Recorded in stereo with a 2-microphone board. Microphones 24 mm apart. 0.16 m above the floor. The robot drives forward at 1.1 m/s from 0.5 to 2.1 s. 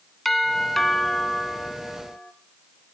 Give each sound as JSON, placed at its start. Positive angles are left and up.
{"t": 0.2, "sound": "a doorbell", "side_deg": 10, "distance_m": 1.8}